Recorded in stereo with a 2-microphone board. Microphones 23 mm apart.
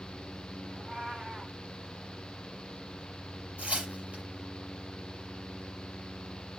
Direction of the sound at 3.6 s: 75° right (ahead or behind).